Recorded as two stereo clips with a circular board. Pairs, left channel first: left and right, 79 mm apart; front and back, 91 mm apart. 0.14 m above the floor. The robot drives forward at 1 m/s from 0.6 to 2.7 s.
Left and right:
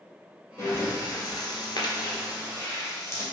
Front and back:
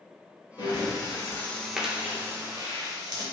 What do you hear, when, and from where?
0.6 s breathing: 35° left, 1.4 m; by 3.2 s 140° left, 1.3 m